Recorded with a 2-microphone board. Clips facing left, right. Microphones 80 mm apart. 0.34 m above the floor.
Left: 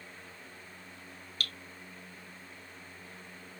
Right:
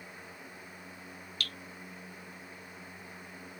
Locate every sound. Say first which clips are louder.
1.4 s dripping: left 1 dB; 45° left (ahead or behind), 2 m